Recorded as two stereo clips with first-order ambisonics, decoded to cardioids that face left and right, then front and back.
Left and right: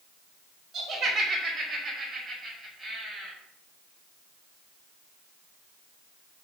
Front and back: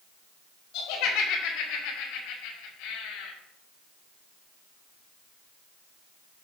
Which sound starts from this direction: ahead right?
Laughter, at 0.7 s.